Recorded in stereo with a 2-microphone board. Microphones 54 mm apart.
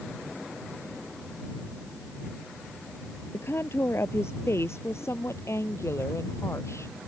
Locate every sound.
3.3 s a woman speaking: 55° left (ahead or behind); by 7.0 s 65° left (ahead or behind)